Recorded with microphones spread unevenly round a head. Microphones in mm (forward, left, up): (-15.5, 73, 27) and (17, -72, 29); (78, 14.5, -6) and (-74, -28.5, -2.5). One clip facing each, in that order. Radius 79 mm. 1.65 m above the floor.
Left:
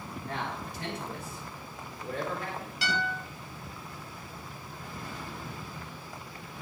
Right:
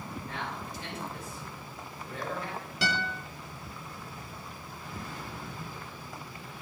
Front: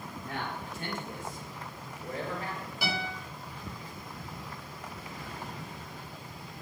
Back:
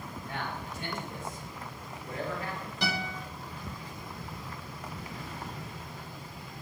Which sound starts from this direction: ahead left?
A man speaking, at 0.2 s.